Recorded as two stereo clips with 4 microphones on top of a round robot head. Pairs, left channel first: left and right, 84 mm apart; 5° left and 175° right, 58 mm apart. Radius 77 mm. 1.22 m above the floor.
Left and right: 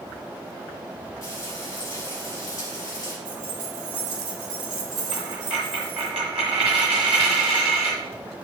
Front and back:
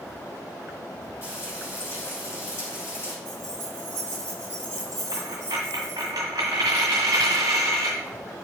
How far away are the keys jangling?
About 3 m.